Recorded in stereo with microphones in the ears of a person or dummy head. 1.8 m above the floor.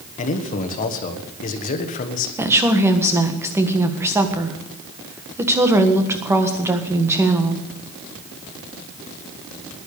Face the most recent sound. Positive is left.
turn(degrees=-15)  # may be behind; listen again after turning